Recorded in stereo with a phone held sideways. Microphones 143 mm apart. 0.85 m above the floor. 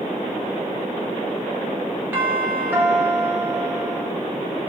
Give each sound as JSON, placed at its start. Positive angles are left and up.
{"t": 2.1, "sound": "a doorbell", "side_deg": -15, "distance_m": 1.9}